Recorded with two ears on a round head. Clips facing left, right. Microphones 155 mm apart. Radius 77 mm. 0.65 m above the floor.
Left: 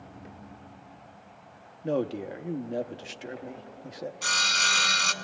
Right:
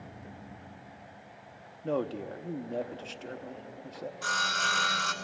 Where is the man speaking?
15° left (ahead or behind), 0.7 m.